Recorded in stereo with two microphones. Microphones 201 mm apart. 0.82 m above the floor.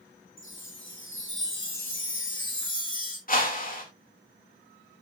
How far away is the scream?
No scream in this recording.